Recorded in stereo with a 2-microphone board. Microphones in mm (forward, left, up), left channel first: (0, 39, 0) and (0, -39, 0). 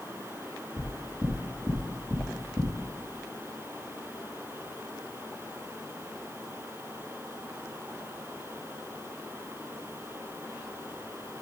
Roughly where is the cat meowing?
No cat meowing in this recording.